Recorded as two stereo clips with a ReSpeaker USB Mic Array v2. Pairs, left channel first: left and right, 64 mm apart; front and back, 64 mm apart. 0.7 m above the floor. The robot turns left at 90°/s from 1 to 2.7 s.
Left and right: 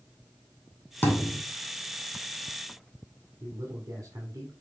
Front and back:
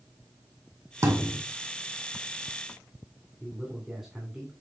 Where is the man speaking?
100° right, 2 m.